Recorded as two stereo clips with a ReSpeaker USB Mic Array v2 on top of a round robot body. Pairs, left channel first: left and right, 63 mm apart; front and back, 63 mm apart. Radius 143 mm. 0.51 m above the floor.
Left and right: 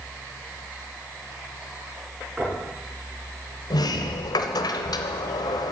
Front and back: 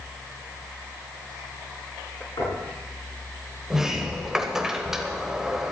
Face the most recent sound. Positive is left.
turn(degrees=95)